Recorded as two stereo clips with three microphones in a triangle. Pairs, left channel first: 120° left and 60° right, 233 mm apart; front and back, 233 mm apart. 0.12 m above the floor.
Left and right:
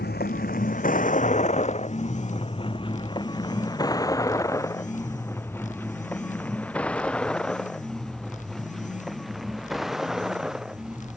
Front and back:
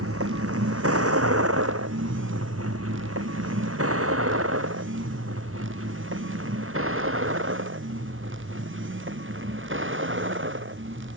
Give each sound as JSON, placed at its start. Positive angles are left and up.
{"t": 0.0, "sound": "a vehicle", "azimuth_deg": 165}